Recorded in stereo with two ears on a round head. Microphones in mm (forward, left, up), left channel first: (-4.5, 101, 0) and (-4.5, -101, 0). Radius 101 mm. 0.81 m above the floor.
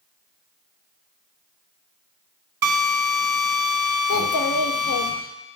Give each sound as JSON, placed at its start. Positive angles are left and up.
{"t": 2.6, "sound": "a drill", "side_deg": -50, "distance_m": 1.6}
{"t": 4.1, "sound": "a child speaking", "side_deg": 65, "distance_m": 0.6}